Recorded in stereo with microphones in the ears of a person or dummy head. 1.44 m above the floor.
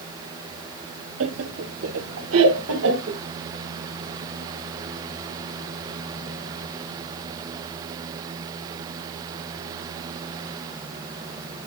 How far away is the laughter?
About 0.7 m.